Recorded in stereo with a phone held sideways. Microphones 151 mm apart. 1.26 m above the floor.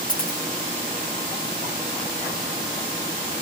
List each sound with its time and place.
0.1 s a dropped coin: 65° left (ahead or behind), 3 m